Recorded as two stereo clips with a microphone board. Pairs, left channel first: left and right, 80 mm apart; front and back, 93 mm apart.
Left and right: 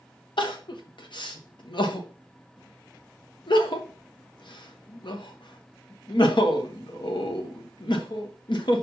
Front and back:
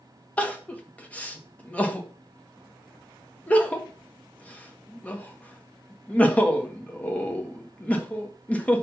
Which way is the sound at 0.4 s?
75° left.